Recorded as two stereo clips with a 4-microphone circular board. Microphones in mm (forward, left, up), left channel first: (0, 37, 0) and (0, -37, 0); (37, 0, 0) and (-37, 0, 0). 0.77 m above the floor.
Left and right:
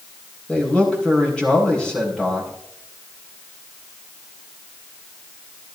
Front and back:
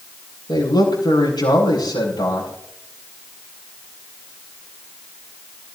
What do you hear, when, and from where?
0.5 s a man speaking: 15° left, 8.5 m